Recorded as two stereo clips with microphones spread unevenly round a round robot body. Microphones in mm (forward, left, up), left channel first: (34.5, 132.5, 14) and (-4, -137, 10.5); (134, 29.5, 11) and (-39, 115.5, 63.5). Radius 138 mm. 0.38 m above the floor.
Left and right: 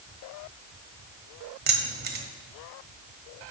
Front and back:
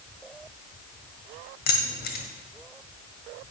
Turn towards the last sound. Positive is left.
turn(degrees=-45)